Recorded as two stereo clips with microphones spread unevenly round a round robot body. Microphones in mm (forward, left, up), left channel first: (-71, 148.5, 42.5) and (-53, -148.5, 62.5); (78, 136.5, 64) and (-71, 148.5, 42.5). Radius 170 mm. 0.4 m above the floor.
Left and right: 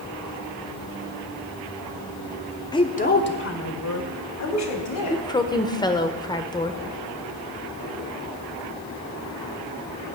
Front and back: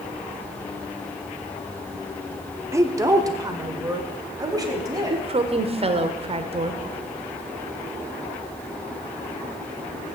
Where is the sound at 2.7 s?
150° left, 1.2 m; by 5.2 s 110° left, 3.5 m.